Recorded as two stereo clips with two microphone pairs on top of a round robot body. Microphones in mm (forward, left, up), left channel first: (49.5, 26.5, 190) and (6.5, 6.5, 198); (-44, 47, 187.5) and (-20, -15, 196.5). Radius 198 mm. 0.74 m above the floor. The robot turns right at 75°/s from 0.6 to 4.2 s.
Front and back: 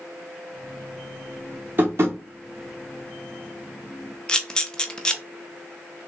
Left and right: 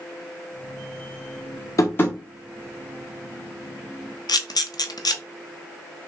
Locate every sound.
1.8 s tapping: 155° left, 1.0 m; by 2.2 s straight behind, 1.0 m
4.3 s a camera shutter: 95° left, 0.7 m